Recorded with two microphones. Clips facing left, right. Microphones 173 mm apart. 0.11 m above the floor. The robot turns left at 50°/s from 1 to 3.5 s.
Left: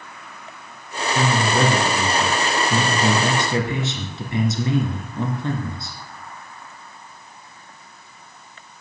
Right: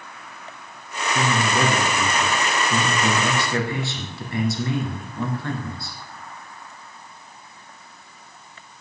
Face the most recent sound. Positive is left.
turn(degrees=20)  # may be behind; listen again after turning